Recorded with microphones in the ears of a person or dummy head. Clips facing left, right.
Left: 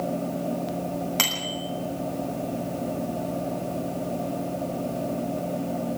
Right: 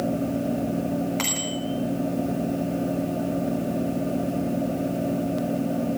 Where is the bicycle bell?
45° left (ahead or behind), 7.5 m.